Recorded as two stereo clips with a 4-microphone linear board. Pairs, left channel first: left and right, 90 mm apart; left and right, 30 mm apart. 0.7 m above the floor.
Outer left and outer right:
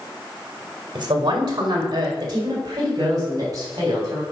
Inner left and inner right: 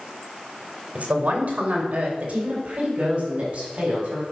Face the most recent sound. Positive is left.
turn(degrees=-40)  # may be behind; listen again after turning